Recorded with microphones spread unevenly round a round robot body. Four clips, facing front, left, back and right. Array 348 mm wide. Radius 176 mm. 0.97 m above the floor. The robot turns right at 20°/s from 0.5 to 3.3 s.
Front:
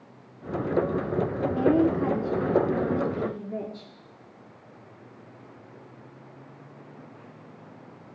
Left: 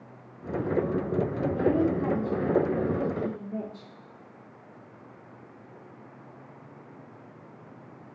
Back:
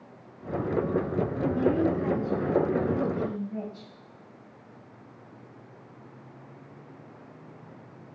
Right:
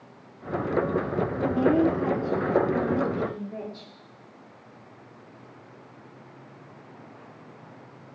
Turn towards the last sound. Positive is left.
turn(degrees=0)